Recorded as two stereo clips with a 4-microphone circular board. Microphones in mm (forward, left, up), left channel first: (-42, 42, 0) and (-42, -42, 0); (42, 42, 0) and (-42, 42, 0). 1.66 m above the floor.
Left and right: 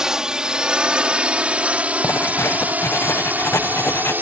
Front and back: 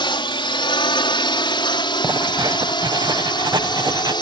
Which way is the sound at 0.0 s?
5° right.